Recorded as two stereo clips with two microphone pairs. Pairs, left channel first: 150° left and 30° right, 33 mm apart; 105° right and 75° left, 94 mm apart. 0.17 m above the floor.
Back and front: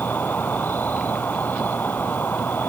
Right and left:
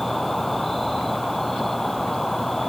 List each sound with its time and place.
0.0 s an insect: 165° left